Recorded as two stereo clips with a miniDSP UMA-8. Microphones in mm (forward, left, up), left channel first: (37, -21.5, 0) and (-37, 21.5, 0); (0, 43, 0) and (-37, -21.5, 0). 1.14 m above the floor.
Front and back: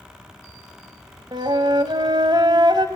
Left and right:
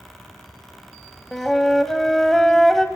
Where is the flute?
145° left, 1.7 m.